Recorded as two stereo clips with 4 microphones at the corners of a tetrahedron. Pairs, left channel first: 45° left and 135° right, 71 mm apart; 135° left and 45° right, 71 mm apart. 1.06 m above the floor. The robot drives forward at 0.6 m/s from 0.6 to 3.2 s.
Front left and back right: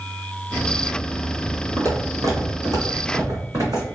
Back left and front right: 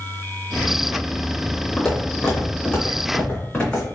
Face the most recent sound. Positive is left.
turn(degrees=-150)